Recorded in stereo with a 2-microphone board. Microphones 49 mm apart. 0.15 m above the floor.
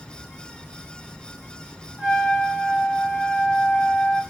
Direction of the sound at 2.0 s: Centre (ahead or behind).